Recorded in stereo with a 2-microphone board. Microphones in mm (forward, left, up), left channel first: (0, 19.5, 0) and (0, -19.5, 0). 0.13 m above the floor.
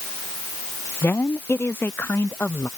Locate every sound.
1.0 s a woman speaking: 75° left (ahead or behind); by 2.7 s 80° left